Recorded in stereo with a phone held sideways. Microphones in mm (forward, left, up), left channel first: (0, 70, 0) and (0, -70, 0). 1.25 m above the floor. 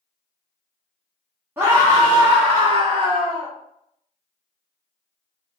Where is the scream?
15° right (ahead or behind), 0.6 m; by 3.5 s 60° right (ahead or behind), 1.3 m.